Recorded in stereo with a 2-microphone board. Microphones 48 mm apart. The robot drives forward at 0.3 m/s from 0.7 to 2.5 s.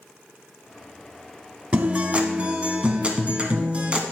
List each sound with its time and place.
1.7 s a guitar: 30° right (ahead or behind), 1.0 m; by 4.0 s 25° right (ahead or behind), 1.1 m